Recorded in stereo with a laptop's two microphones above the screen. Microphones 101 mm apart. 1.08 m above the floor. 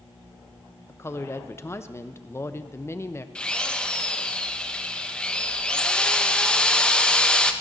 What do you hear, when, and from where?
0.9 s a woman speaking: 25° left (ahead or behind), 0.6 m
3.4 s a drill: 10° left (ahead or behind), 0.7 m